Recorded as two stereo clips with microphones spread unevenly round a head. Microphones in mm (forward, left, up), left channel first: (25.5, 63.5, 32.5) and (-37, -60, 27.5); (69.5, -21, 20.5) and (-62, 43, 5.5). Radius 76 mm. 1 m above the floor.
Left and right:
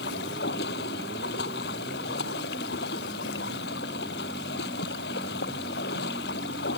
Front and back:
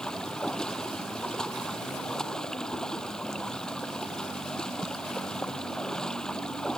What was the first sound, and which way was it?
Running water, 60° left.